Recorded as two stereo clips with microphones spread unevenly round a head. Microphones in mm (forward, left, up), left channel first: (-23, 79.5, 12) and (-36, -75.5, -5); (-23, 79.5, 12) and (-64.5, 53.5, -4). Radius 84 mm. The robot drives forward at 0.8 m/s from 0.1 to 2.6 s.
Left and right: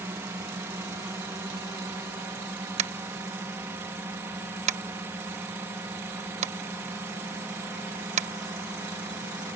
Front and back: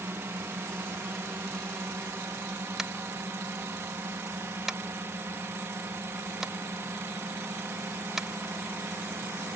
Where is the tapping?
85° right.